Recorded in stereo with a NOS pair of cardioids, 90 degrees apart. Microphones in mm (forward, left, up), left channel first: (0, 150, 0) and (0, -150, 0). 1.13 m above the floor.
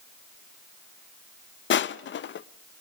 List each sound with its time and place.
1.7 s crushing: 40° left, 0.6 m